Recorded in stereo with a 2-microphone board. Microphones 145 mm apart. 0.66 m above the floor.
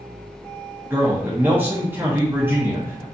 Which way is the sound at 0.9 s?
15° right (ahead or behind).